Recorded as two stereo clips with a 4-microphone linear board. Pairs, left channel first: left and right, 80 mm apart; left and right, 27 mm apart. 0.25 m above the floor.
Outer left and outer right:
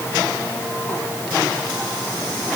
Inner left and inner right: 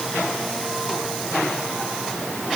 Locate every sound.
Only background noise.